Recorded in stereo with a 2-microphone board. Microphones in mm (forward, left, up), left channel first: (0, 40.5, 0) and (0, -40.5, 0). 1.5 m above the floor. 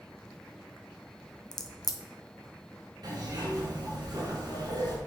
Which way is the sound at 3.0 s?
50° right (ahead or behind).